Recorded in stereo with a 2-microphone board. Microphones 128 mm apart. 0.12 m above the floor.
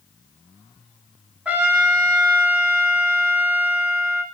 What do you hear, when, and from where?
1.4 s a trumpet: 10° right (ahead or behind), 0.7 m